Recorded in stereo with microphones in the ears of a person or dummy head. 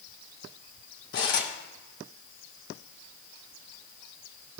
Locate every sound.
1.1 s cutlery clinking: 65° left (ahead or behind), 3 m